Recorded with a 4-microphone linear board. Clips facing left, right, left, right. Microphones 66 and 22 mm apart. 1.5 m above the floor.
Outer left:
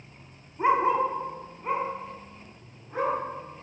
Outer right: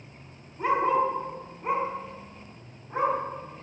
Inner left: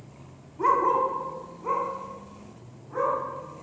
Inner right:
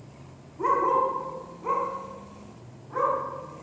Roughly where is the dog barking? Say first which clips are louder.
Outer left 1 dB, inner left 1 dB; left.